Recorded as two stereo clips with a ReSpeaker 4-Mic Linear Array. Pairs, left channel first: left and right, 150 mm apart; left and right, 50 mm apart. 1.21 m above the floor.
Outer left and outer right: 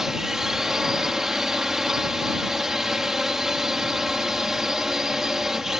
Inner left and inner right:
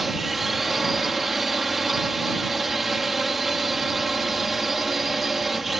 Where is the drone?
5° right (ahead or behind).